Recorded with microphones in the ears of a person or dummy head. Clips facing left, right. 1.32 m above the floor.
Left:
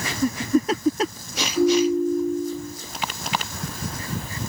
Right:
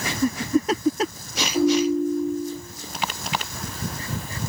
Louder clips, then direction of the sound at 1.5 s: Left 1 dB; 30° right (ahead or behind).